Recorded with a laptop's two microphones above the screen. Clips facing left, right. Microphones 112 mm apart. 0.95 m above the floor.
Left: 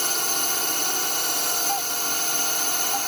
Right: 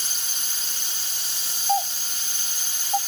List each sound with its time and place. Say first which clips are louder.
0.0 s a drone: left 13 dB; 65° left (ahead or behind)
1.7 s a doorbell: right 9 dB; 30° right (ahead or behind)